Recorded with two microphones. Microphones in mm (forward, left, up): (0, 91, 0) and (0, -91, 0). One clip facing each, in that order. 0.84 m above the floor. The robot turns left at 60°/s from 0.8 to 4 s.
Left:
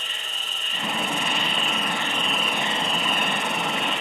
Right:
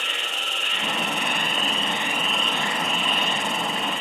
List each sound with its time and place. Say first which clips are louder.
0.0 s an insect: right 6 dB; 90° right, 0.8 m; by 4.0 s 80° left, 0.8 m